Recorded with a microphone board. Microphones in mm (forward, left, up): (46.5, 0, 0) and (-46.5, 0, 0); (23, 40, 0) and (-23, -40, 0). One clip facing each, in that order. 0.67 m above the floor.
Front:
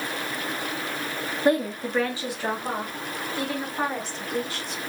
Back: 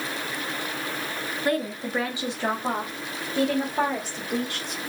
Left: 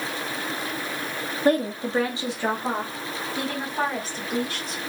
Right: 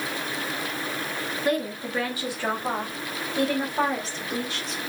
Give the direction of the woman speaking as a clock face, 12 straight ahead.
11 o'clock.